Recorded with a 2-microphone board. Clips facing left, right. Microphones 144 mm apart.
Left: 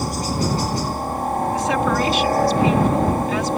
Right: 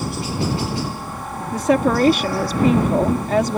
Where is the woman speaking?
50° right (ahead or behind).